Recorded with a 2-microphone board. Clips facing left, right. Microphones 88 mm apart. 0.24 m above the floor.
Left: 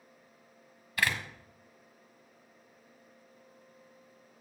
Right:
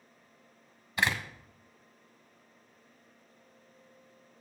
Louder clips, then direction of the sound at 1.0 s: Right 1 dB; 25° right (ahead or behind).